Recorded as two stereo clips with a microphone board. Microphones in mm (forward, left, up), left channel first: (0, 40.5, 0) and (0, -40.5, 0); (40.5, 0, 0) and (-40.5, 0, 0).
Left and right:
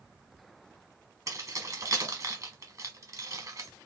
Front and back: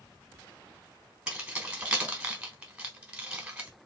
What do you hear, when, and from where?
1.3 s keys jangling: 110° right, 1.1 m